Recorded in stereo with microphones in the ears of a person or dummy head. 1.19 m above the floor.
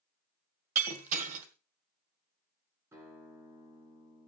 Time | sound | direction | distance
0.8 | breaking glass | 40° right (ahead or behind) | 1.5 m
2.9 | a guitar | 20° right (ahead or behind) | 2 m